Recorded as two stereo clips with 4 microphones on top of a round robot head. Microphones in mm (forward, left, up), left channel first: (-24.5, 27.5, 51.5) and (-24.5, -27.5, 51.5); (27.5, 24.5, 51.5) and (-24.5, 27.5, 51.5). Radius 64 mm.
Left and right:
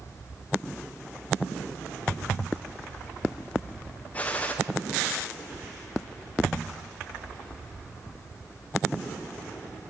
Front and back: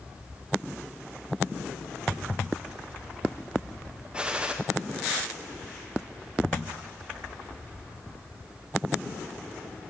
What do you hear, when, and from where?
4.1 s a gunshot: 125° left, 0.5 m